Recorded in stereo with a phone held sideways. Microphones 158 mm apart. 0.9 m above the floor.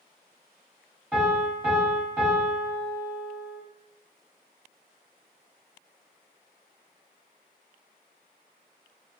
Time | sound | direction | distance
1.1 | a piano | 5° right (ahead or behind) | 1.3 m